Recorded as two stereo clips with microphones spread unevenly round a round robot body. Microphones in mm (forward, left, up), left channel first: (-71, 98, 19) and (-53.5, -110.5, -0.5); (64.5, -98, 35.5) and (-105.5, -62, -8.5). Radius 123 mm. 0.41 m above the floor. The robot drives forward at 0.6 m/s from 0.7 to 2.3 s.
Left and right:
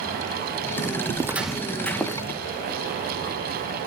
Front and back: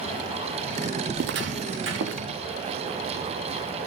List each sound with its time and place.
1.1 s footsteps: 155° right, 0.5 m; by 2.2 s 175° left, 1.9 m